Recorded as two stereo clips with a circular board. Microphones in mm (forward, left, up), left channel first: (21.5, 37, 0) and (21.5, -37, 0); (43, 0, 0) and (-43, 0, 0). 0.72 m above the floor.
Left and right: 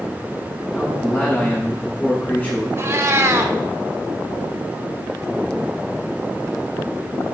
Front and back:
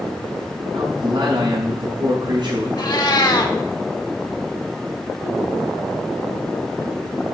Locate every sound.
0.7 s a man speaking: 150° left, 5 m
2.8 s a cat meowing: 40° right, 0.9 m